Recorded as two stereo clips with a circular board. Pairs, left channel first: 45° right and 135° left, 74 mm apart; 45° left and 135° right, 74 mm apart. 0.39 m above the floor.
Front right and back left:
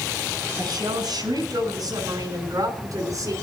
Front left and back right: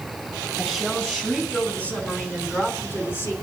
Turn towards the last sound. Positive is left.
turn(degrees=100)